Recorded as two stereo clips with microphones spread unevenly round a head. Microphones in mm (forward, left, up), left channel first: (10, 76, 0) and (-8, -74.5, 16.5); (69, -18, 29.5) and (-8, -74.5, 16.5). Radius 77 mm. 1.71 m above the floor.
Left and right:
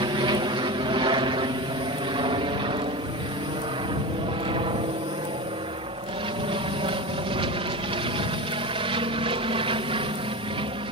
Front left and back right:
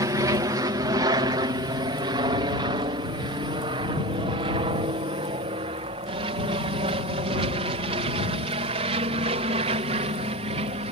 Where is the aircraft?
140° right; by 10.9 s 155° right.